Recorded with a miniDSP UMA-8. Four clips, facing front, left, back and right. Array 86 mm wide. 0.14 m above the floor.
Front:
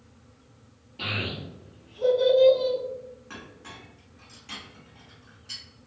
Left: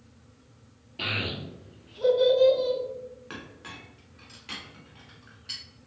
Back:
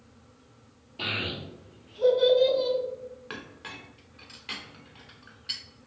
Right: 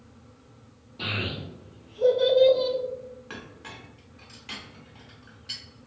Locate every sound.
1.0 s a child speaking: 90° left, 1.6 m; by 2.8 s 95° right, 0.9 m
3.3 s a clink: 175° left, 0.7 m